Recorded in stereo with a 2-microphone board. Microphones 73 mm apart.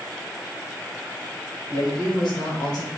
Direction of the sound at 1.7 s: 75° left (ahead or behind).